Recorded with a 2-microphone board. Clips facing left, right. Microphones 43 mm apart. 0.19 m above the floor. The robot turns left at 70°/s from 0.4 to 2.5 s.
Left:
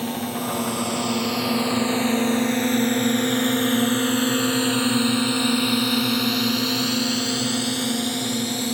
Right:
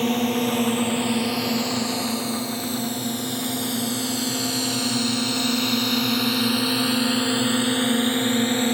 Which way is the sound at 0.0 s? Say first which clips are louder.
Right 5 dB; 60° right (ahead or behind).